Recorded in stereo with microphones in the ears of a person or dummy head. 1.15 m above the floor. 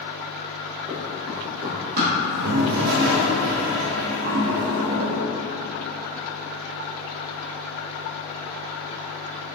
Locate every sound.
0.9 s running footsteps: 25° right (ahead or behind), 1.8 m; by 2.1 s 50° right (ahead or behind), 1.8 m
2.2 s a toilet flushing: 55° right (ahead or behind), 0.5 m